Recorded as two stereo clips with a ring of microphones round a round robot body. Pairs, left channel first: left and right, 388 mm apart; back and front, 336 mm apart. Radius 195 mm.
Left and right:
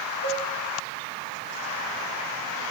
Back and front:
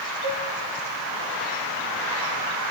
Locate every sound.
0.2 s a cowbell: 155° left, 2.5 m